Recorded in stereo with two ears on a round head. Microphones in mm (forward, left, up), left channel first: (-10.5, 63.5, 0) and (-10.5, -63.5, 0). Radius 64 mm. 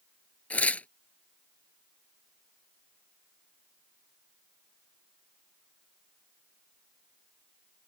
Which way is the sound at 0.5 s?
10° left (ahead or behind).